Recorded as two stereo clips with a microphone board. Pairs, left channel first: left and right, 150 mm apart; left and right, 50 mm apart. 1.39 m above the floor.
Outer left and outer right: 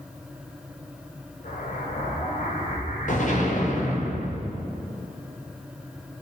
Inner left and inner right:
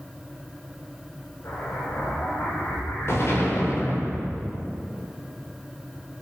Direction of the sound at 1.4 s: 60° left (ahead or behind).